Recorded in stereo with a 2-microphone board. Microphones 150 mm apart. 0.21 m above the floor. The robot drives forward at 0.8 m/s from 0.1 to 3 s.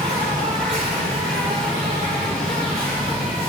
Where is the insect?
70° right (ahead or behind), 4.5 m; by 3.5 s 80° right, 4.5 m.